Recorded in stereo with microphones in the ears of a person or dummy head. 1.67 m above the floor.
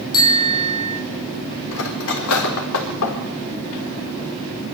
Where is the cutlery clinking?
70° left (ahead or behind), 3.5 m.